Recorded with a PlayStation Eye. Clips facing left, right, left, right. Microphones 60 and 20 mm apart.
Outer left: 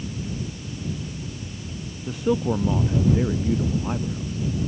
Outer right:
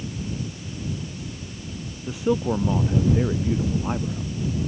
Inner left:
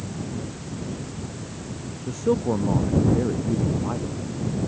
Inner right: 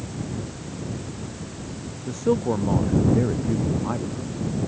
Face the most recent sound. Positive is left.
turn(degrees=-15)  # may be behind; listen again after turning